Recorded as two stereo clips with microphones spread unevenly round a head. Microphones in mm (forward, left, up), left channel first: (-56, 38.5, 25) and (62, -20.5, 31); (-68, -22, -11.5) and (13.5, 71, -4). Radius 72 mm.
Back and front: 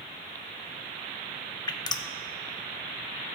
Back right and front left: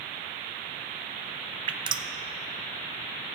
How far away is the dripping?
About 0.6 m.